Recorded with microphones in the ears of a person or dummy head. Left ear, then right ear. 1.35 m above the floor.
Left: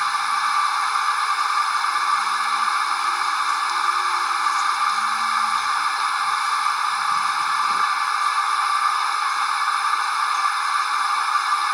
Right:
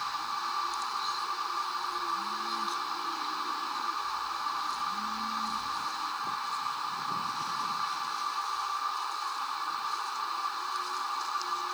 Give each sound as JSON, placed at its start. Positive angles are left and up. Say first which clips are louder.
{"t": 0.0, "sound": "a machine running", "louder": "left 13 dB", "side_deg": 70}